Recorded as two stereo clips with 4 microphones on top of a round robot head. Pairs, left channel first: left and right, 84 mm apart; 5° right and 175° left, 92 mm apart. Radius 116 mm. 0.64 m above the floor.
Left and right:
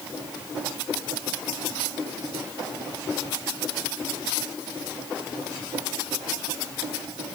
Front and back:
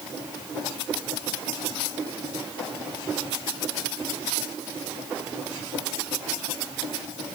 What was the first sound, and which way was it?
Only background noise.